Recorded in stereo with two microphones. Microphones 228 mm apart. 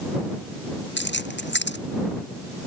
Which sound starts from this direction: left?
Keys jangling, at 1.0 s.